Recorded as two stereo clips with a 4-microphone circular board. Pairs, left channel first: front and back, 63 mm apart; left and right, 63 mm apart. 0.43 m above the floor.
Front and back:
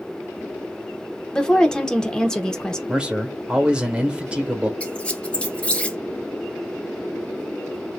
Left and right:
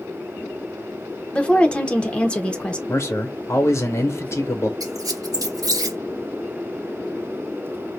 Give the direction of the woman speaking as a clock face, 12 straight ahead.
10 o'clock.